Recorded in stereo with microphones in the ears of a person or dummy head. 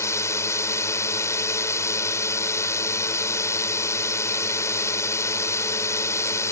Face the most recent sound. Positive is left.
turn(degrees=20)  # may be behind; listen again after turning